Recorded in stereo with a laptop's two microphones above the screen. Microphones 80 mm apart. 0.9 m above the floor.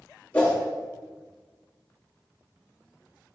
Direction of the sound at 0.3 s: 20° left (ahead or behind).